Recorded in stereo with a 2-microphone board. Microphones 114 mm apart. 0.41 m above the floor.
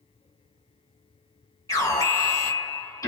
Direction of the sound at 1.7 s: 30° left (ahead or behind).